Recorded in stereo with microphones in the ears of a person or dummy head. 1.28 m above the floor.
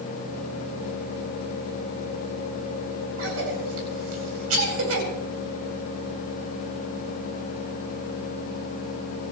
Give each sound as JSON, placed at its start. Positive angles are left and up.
{"t": 3.2, "sound": "a cough", "side_deg": -80, "distance_m": 8.5}